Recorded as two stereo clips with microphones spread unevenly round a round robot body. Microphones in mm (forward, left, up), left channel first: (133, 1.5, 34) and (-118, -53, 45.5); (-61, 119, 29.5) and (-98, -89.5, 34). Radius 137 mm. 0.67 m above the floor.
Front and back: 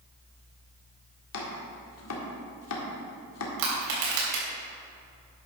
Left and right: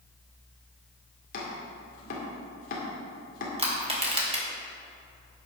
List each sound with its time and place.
1.3 s chopping: 30° left, 1.9 m
3.6 s crushing: 160° right, 3.5 m